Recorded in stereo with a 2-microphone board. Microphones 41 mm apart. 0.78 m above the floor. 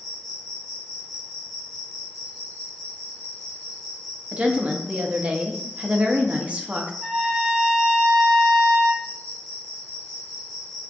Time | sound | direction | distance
0.0 | an insect | 5° right (ahead or behind) | 1.1 m
4.3 | a woman speaking | 30° right (ahead or behind) | 0.7 m
7.0 | a trumpet | 20° right (ahead or behind) | 1.2 m